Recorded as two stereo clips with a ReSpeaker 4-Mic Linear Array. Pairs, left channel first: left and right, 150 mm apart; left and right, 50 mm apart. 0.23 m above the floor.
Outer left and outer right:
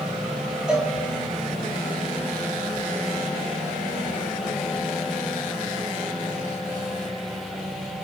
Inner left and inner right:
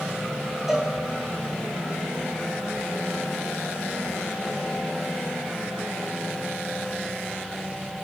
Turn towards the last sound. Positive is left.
turn(degrees=-5)  # may be behind; listen again after turning